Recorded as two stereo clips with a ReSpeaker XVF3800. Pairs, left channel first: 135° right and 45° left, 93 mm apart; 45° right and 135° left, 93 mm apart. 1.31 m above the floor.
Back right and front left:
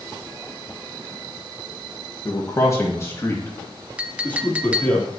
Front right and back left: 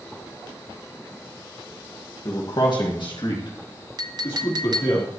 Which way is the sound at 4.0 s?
115° left.